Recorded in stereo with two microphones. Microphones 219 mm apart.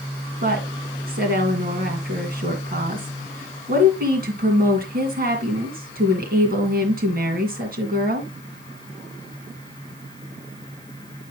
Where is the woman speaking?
45° right (ahead or behind), 2 m.